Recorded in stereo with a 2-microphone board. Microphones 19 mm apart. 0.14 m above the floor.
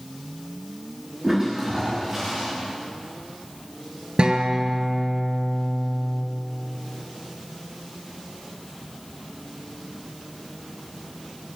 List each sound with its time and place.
1.2 s a toilet flushing: 20° right (ahead or behind), 9.5 m
4.2 s a guitar: 55° right (ahead or behind), 2 m